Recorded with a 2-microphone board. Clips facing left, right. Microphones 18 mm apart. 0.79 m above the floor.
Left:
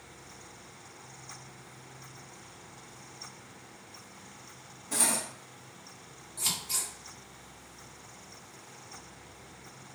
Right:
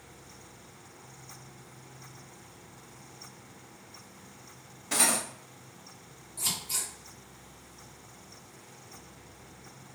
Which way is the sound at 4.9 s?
70° right (ahead or behind).